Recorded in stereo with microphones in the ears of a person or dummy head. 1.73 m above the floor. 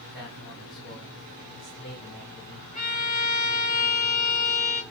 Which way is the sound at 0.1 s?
50° left (ahead or behind).